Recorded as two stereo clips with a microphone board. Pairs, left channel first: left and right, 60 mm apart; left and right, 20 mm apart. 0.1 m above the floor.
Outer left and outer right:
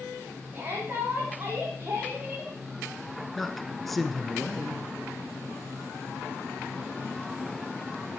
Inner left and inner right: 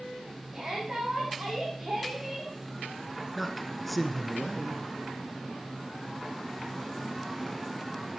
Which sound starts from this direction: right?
A shout, at 0.5 s.